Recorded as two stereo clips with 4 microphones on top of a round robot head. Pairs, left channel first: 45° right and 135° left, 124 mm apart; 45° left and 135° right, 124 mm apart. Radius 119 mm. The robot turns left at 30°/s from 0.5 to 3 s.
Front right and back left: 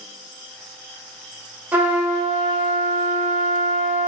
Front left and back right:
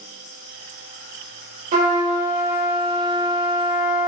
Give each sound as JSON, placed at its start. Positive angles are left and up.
{"t": 1.7, "sound": "a trumpet", "azimuth_deg": -150, "distance_m": 0.8}